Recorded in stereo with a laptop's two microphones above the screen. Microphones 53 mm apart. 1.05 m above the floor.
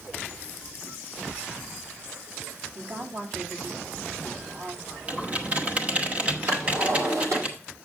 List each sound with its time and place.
2.8 s a woman speaking: 65° right (ahead or behind), 3 m
5.1 s typing on a keyboard: 30° right (ahead or behind), 1.0 m
6.5 s a drawer: 70° right (ahead or behind), 7.5 m